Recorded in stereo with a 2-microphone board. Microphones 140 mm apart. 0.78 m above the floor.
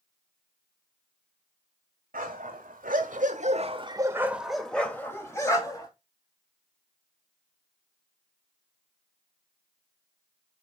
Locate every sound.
2.1 s a dog barking: 80° right, 1.9 m; by 5.9 s 25° left (ahead or behind), 2.5 m